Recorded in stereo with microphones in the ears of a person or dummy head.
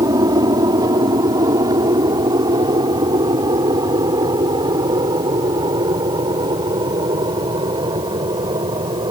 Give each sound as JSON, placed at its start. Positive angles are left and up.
{"t": 0.0, "sound": "an aircraft", "side_deg": -20}